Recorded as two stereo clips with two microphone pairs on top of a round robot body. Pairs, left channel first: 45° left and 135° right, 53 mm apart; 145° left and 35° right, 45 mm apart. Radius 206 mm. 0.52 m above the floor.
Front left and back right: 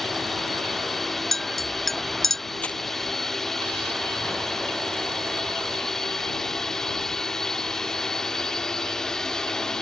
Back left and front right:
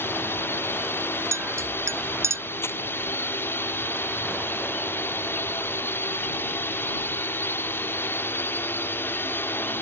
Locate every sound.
0.0 s a drone: 135° left; by 9.8 s 125° left
1.3 s a clink: 45° right
2.6 s crumpling: 115° left